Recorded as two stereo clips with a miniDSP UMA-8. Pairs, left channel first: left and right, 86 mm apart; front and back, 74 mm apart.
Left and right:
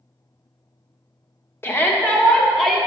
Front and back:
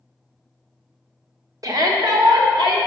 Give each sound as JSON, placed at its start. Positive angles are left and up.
{"t": 1.6, "sound": "a shout", "azimuth_deg": 150, "distance_m": 0.9}